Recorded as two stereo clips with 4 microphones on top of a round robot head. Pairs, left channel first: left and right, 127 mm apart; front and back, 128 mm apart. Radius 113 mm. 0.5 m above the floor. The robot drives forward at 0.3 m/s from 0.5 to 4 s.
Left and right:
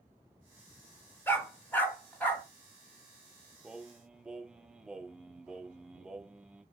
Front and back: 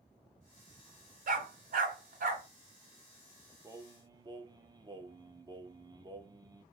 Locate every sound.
1.3 s a dog barking: 165° left, 0.9 m; by 2.5 s 170° left, 1.3 m
3.6 s singing: 165° right, 0.5 m; by 6.6 s 170° right, 0.6 m